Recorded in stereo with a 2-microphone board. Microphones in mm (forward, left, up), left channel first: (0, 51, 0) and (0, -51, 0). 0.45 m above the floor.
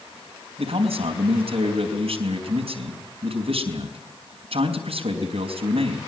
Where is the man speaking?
70° right (ahead or behind), 4.5 m.